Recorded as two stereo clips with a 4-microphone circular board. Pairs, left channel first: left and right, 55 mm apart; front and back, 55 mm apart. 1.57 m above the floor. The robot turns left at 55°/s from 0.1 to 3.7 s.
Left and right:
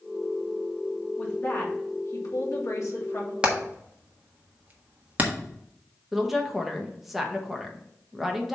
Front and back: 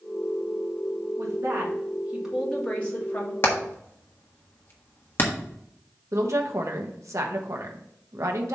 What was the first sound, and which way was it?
A woman speaking, 155° left.